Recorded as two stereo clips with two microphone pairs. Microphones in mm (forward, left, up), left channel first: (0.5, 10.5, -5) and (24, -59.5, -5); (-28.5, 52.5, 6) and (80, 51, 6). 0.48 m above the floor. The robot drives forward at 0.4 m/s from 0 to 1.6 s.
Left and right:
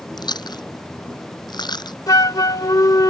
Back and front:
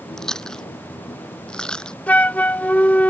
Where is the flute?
105° left.